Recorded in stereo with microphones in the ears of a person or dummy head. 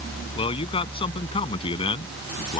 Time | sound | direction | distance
0.3 | a man speaking | 30° left (ahead or behind) | ?